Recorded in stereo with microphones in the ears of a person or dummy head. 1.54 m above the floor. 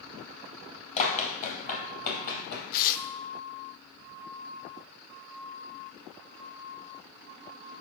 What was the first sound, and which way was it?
Running footsteps, 40° left (ahead or behind).